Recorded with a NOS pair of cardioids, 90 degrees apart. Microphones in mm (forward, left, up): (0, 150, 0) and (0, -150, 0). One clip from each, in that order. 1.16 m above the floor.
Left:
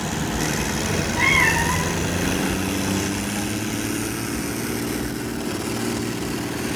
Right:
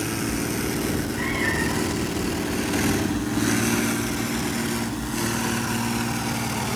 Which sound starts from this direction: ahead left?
A cat meowing, at 0.8 s.